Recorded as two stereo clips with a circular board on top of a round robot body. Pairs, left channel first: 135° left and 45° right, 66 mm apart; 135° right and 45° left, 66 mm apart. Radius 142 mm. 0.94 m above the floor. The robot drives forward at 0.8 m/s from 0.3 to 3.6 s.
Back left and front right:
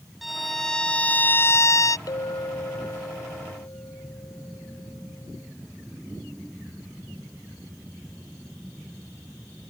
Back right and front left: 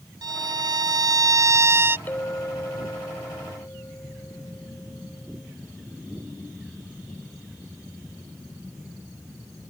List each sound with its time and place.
0.2 s a violin: 45° left; by 2.0 s 105° left
2.1 s a clink: 165° left; by 5.5 s 170° left